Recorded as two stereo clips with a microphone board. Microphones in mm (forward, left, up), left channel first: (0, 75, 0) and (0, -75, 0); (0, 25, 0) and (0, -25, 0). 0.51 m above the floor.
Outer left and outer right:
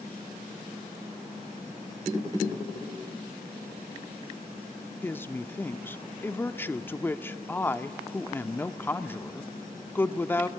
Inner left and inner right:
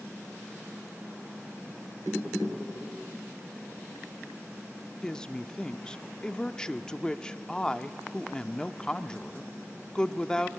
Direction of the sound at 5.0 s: 15° left (ahead or behind).